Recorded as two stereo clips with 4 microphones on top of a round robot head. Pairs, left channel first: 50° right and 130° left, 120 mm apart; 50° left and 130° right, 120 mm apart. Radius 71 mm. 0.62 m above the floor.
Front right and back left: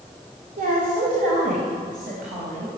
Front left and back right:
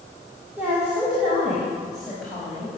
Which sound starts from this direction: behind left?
A woman speaking, at 0.6 s.